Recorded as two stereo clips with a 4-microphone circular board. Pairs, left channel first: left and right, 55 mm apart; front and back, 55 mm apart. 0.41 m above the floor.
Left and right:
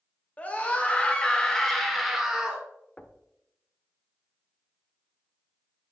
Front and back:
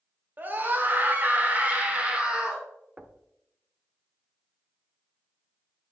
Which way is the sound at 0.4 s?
140° left.